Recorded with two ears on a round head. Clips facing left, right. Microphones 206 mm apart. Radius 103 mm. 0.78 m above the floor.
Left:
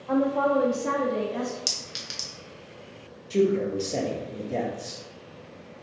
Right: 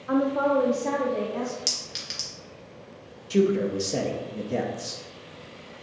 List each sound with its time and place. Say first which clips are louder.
0.1 s a woman speaking: even; 15° right (ahead or behind), 0.8 m; by 1.6 s 35° left (ahead or behind), 1.1 m
1.7 s a clink: right 1 dB; 5° left (ahead or behind), 0.7 m
3.3 s a man speaking: right 1 dB; 15° right (ahead or behind), 0.6 m